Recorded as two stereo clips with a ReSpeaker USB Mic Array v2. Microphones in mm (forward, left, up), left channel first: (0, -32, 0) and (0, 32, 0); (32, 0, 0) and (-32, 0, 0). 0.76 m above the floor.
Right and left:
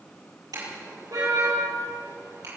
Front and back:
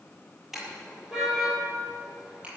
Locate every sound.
0.5 s a car horn: 95° left, 8.5 m; by 2.5 s 110° left, 10 m